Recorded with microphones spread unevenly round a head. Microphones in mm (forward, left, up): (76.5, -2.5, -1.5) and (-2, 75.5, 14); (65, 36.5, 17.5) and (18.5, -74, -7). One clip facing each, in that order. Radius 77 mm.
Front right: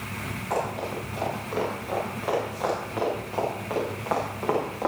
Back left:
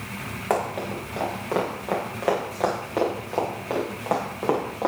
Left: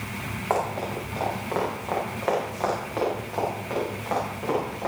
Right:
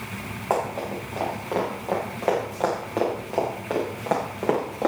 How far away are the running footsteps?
About 8.5 m.